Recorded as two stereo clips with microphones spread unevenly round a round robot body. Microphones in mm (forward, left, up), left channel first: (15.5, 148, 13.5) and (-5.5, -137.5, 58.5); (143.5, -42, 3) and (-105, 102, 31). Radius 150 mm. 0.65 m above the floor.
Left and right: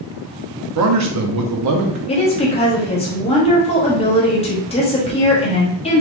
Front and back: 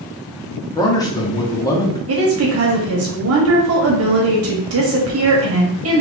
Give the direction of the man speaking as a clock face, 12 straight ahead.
3 o'clock.